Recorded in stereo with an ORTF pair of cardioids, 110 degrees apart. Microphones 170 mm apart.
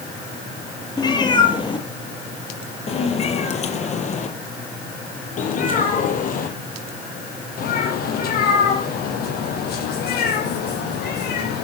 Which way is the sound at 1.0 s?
25° left.